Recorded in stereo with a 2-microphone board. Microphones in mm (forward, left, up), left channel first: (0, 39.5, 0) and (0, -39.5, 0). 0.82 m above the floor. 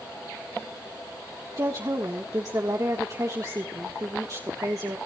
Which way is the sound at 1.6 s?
45° right (ahead or behind).